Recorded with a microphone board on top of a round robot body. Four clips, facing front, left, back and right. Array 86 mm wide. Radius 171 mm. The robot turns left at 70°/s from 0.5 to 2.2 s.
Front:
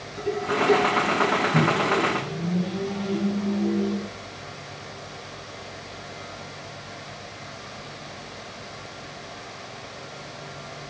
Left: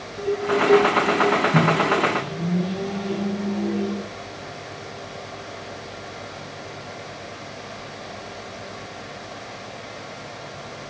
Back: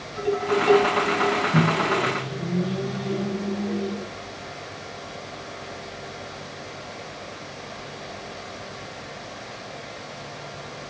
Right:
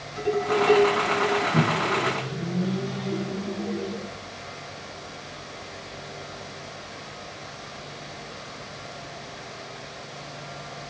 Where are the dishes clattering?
140° right, 4.5 m; by 1.4 s 155° left, 4.5 m.